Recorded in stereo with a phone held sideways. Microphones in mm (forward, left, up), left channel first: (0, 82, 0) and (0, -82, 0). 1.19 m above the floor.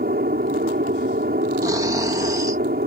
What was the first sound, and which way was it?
An aircraft, 65° right (ahead or behind).